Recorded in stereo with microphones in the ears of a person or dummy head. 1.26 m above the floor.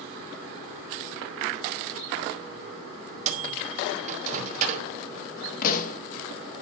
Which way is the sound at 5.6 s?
50° left (ahead or behind).